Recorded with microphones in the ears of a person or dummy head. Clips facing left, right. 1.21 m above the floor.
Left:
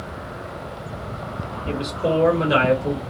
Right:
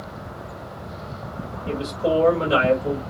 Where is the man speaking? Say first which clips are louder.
Even; 20° left (ahead or behind), 2.5 m.